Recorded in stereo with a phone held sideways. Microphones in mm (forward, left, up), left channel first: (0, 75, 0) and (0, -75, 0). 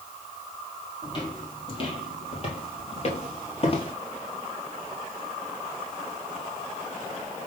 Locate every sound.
1.0 s footsteps: 35° left (ahead or behind), 2.5 m; by 3.9 s 40° left (ahead or behind), 1.7 m